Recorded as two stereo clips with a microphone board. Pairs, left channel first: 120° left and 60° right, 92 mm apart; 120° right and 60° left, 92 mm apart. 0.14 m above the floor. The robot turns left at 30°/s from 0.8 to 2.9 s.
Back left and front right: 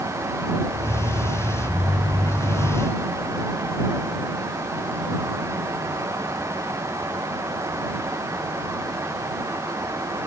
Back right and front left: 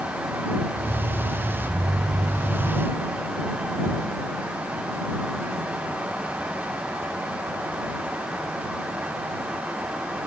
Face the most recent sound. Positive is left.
No sound to turn to.